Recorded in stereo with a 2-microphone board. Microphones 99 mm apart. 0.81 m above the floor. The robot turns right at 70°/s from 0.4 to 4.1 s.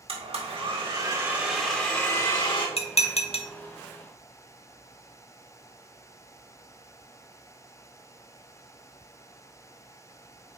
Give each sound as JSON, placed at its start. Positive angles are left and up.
{"t": 0.1, "sound": "a blender", "azimuth_deg": -85, "distance_m": 1.9}
{"t": 2.8, "sound": "dishes clattering", "side_deg": 70, "distance_m": 0.8}